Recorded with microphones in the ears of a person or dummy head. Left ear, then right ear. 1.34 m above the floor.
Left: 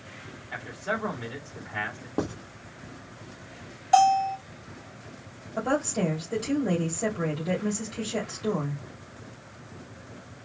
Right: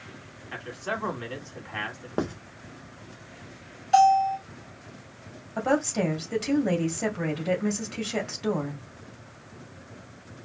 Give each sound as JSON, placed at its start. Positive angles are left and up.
{"t": 0.5, "sound": "a man speaking", "side_deg": -30, "distance_m": 2.5}
{"t": 2.2, "sound": "writing", "side_deg": -35, "distance_m": 1.2}
{"t": 3.9, "sound": "a bell", "side_deg": 40, "distance_m": 1.3}
{"t": 5.6, "sound": "a woman speaking", "side_deg": -25, "distance_m": 2.0}